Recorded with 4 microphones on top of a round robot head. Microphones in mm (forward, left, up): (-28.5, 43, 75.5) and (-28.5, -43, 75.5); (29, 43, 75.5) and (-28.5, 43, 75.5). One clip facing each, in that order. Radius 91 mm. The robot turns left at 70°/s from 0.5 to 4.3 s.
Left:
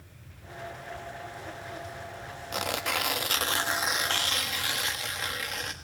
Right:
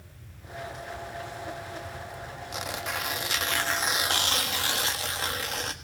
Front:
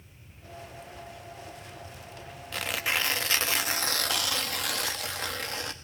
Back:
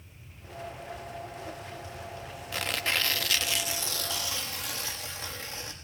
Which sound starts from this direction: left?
Tearing paper, at 2.5 s.